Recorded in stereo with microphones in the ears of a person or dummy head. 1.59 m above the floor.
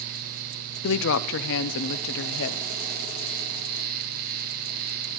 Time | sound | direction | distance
0.8 | a woman speaking | 65° left (ahead or behind) | 0.7 m